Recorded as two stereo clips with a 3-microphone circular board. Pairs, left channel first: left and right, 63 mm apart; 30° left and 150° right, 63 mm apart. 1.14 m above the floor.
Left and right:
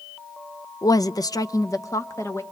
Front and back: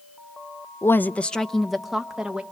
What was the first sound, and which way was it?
A woman speaking, 70° left.